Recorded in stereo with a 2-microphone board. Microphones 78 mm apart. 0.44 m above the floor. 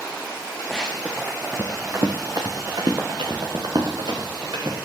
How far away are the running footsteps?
About 2.5 m.